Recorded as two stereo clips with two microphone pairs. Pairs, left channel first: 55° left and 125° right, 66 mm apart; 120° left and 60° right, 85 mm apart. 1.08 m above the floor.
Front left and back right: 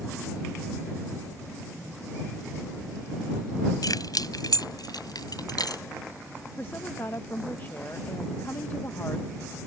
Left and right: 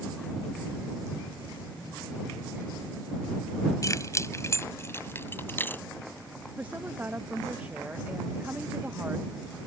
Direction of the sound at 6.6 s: 10° left.